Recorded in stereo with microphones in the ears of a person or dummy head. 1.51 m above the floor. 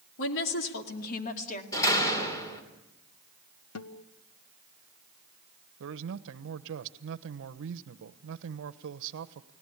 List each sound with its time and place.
0.2 s a woman speaking: 70° left (ahead or behind), 3 m; by 1.6 s 40° left (ahead or behind), 2.5 m
1.7 s a door slam: 20° left (ahead or behind), 3.5 m
3.8 s a guitar: 75° left (ahead or behind), 1.0 m
5.8 s a man speaking: 70° right (ahead or behind), 1.1 m